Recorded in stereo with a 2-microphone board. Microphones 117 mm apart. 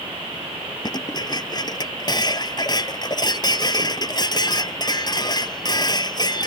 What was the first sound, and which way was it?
Dishes clattering, 35° left (ahead or behind).